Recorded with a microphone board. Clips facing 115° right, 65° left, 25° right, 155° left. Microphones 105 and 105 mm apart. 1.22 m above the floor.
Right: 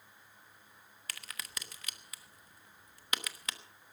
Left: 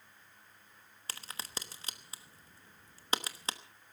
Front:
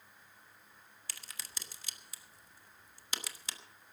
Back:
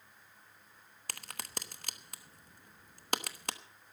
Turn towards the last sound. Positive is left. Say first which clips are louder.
# left 3 dB, back 8 dB
turn(degrees=125)